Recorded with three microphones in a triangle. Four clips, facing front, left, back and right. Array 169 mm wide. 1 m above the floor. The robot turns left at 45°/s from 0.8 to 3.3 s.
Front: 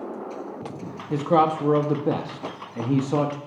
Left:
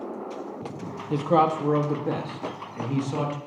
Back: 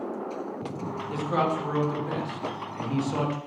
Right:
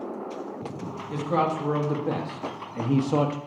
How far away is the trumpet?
I don't hear a trumpet.